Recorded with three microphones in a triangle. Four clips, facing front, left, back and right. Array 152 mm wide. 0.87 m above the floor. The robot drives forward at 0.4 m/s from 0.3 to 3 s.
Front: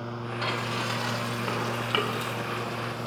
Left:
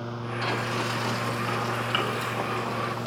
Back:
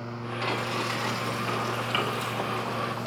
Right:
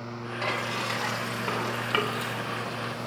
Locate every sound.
0.4 s frying: 40° right, 3 m; by 3.1 s 55° right, 2.5 m